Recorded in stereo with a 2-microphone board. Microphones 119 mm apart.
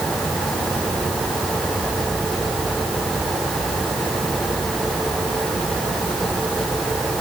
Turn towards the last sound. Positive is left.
No sound to turn to.